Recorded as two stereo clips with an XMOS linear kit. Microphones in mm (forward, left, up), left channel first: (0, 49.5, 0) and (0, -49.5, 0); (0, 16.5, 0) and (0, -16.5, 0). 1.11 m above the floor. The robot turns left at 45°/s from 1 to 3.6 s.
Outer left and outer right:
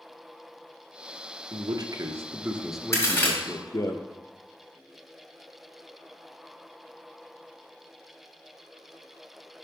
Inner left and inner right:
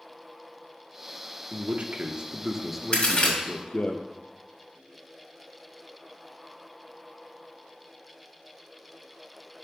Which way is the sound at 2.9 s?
35° left (ahead or behind).